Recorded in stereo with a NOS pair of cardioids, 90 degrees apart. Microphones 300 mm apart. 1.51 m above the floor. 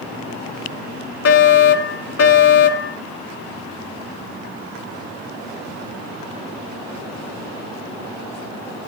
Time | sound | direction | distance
1.2 | a fire alarm | 55° left | 4 m